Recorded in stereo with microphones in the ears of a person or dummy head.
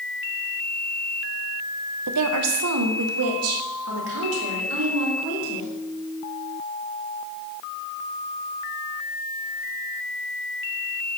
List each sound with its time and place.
2.1 s a woman speaking: 75° right (ahead or behind), 0.9 m; by 5.7 s 60° right (ahead or behind), 4 m